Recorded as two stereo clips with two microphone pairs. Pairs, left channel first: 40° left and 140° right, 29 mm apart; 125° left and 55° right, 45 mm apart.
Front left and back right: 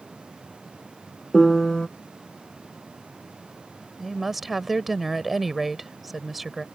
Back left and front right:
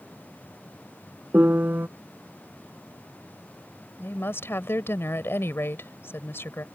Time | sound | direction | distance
1.3 | a piano | 15° right | ?
4.0 | a woman speaking | 135° left | ?